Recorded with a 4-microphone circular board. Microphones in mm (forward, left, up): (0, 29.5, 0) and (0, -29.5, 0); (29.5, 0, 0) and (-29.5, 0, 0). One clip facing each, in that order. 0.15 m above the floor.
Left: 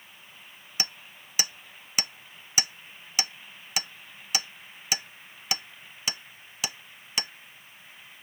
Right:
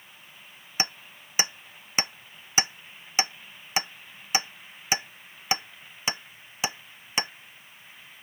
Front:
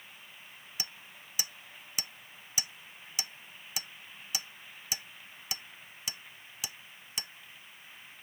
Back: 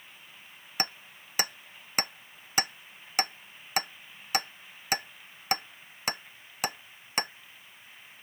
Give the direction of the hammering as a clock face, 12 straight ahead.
5 o'clock.